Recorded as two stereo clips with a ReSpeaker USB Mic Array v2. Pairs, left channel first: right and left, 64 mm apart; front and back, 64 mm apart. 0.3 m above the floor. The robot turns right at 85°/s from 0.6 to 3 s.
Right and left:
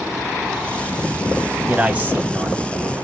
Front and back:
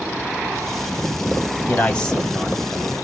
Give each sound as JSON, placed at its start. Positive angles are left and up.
{"t": 1.7, "sound": "a man speaking", "azimuth_deg": 30, "distance_m": 1.4}